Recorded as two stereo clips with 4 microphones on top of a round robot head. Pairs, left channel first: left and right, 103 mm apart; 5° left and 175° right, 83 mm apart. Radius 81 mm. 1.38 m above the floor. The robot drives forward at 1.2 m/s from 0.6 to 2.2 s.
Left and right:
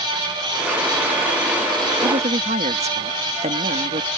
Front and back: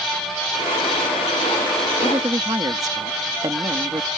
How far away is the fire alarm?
No fire alarm in this recording.